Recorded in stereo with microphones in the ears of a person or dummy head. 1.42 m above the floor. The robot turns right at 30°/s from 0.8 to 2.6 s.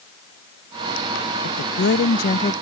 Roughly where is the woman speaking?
Left.